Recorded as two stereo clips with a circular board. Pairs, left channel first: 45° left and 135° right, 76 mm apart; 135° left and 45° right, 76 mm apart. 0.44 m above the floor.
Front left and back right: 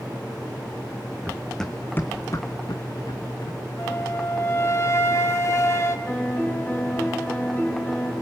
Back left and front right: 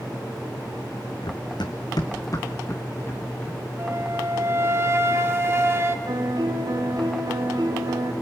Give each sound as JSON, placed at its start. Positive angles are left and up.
{"t": 1.2, "sound": "running footsteps", "azimuth_deg": 150, "distance_m": 1.5}
{"t": 3.8, "sound": "a flute", "azimuth_deg": 5, "distance_m": 1.8}
{"t": 6.1, "sound": "a piano", "azimuth_deg": -20, "distance_m": 3.0}